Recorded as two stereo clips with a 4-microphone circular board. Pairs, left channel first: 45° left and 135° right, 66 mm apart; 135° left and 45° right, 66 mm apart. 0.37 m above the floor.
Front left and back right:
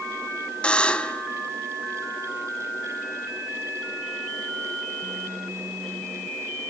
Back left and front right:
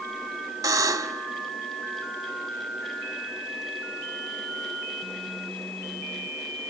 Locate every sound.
0.6 s a buzzer: 30° right, 0.8 m